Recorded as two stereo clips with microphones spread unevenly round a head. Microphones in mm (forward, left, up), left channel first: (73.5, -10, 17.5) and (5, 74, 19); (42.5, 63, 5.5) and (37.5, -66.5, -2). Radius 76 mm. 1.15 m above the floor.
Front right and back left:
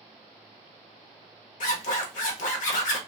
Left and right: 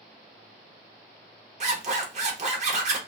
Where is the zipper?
55° right, 1.1 m.